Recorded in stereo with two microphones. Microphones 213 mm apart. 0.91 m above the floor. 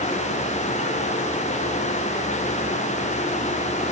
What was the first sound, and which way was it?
Only background noise.